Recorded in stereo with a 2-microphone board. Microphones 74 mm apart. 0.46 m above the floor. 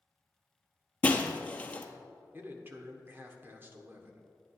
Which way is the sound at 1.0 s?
20° left (ahead or behind).